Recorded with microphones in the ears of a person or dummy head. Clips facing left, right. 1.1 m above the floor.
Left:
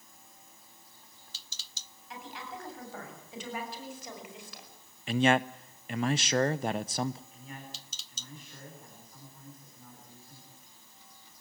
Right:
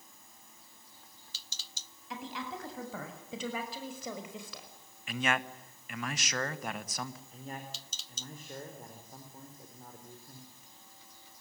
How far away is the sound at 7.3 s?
About 4 m.